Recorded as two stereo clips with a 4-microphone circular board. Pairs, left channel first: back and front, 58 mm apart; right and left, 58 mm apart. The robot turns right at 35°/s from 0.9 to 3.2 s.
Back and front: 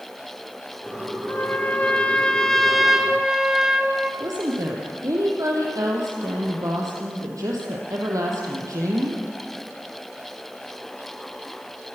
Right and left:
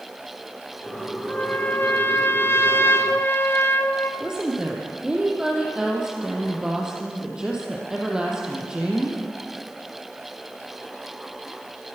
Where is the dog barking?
I don't hear a dog barking.